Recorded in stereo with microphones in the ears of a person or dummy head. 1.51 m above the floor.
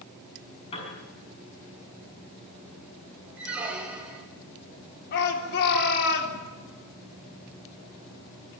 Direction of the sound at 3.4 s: 5° right (ahead or behind).